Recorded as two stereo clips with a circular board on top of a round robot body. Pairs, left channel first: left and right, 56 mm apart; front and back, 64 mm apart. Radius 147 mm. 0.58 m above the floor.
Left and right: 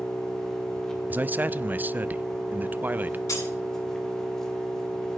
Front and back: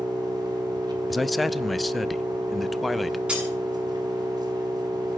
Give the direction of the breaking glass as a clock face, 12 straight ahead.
8 o'clock.